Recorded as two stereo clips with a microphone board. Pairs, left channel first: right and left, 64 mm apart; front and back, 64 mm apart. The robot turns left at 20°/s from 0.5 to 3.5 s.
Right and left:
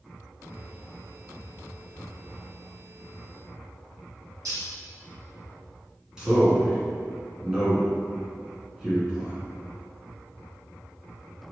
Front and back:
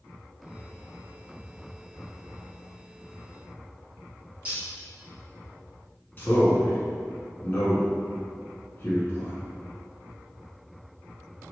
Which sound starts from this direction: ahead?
A man speaking, at 6.2 s.